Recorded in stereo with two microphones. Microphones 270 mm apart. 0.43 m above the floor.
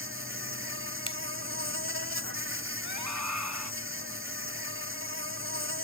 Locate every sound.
0.0 s an insect: 45° right (ahead or behind)
1.1 s a finger snap: 20° left (ahead or behind)
2.8 s a scream: 80° right